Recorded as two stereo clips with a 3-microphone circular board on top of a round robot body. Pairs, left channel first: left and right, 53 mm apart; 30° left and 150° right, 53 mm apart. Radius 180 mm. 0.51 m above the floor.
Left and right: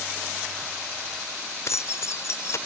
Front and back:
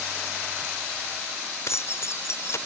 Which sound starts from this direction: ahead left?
Keys jangling, at 1.7 s.